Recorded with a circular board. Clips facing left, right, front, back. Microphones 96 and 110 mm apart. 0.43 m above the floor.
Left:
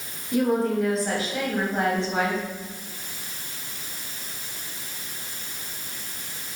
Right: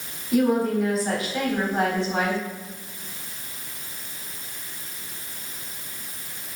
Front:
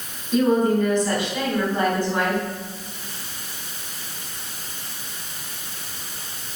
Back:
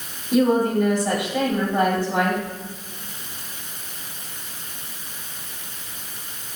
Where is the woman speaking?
175° right, 3 m.